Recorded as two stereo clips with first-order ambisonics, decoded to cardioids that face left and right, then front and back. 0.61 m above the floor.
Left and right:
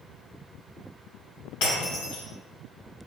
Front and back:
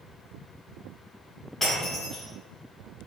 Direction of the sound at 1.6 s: 90° left.